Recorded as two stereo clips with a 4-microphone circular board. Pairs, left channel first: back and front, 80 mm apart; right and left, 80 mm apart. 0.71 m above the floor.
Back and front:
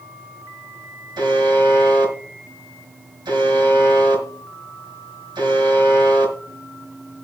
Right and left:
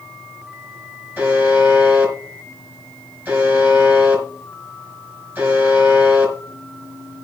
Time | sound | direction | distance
1.2 | a buzzer | 25° left | 4.5 m